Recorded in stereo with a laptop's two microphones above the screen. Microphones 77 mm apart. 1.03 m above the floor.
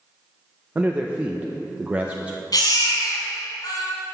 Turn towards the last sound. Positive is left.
turn(degrees=55)  # may be behind; listen again after turning